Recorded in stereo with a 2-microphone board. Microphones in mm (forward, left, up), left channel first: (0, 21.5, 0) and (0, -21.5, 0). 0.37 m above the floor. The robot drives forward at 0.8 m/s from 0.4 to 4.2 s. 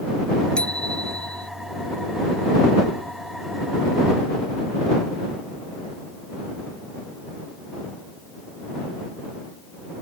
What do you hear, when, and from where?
0.6 s a bicycle bell: 20° left (ahead or behind)